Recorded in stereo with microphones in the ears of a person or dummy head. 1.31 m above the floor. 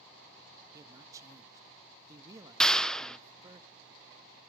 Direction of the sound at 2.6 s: Centre (ahead or behind).